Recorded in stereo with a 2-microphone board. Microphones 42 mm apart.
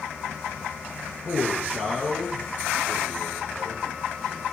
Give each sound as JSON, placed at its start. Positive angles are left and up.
{"t": 1.2, "sound": "a man speaking", "side_deg": -10, "distance_m": 5.0}